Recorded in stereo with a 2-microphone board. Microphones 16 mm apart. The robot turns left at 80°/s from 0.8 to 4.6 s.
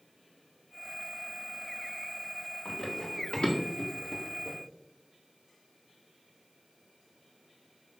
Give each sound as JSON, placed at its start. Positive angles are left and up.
{"t": 2.6, "sound": "running footsteps", "side_deg": 40, "distance_m": 3.5}